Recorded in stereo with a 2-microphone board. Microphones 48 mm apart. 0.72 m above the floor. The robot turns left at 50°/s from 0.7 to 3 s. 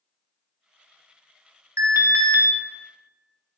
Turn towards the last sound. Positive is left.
turn(degrees=-140)